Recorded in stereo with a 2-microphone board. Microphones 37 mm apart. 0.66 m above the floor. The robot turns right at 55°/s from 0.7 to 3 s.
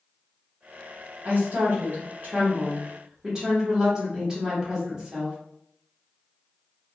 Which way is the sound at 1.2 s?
120° right.